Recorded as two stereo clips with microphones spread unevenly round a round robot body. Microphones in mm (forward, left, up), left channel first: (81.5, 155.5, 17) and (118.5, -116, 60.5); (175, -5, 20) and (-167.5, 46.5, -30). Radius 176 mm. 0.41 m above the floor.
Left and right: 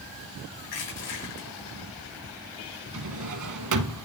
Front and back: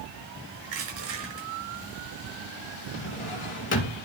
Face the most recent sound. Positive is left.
turn(degrees=-70)